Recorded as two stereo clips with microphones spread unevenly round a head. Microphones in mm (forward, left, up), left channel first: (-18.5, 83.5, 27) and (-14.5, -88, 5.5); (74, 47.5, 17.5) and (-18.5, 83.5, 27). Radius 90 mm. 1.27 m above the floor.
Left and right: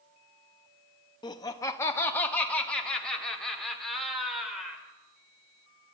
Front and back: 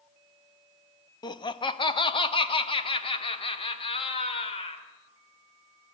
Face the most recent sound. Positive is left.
turn(degrees=0)